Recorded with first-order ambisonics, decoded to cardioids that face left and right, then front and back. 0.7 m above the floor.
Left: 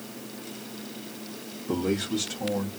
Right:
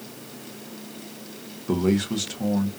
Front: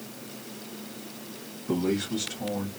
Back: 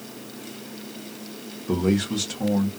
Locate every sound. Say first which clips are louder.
1.7 s a man speaking: right 4 dB, back 4 dB; 115° right, 0.8 m; by 2.7 s 155° right, 1.3 m